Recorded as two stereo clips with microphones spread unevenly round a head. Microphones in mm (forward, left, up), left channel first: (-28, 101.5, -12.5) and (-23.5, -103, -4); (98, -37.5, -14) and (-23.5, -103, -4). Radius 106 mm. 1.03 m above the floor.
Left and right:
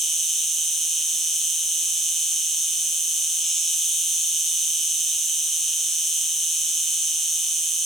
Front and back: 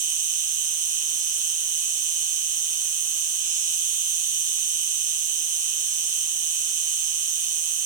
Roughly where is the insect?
Behind.